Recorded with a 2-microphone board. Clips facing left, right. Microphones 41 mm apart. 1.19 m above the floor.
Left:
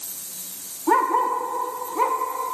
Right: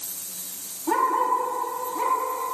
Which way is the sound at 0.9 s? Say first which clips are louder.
Left 2 dB; 30° left (ahead or behind).